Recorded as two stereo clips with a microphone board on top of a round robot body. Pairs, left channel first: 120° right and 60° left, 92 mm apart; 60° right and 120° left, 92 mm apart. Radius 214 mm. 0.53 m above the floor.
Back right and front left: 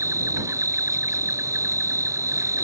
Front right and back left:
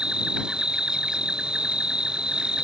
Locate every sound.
0.0 s an insect: 45° left